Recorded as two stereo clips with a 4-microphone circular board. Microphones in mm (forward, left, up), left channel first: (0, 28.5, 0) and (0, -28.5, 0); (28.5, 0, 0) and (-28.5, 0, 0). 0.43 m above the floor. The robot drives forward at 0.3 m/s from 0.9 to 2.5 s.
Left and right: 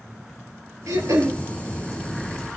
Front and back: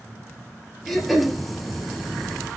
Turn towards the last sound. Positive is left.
turn(degrees=-100)